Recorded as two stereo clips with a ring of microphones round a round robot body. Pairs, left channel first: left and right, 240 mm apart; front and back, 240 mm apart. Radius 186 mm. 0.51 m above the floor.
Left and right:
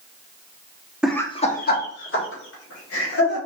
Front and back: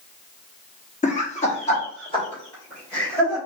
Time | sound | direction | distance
1.0 | laughter | 5° right | 1.0 m